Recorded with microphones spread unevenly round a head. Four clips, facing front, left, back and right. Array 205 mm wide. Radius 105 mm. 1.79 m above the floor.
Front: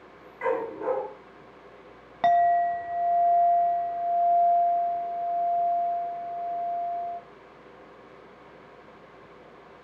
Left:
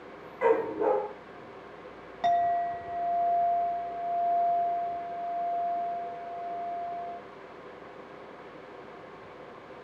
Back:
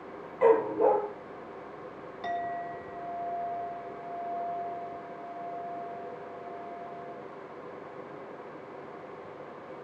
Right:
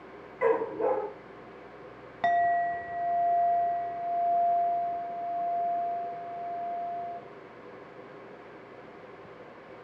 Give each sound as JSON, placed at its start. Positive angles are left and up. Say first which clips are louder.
{"t": 0.4, "sound": "a dog barking", "louder": "left 1 dB, back 5 dB", "azimuth_deg": -160, "distance_m": 4.5}
{"t": 2.2, "sound": "a clink", "louder": "even, front 14 dB", "azimuth_deg": -25, "distance_m": 1.8}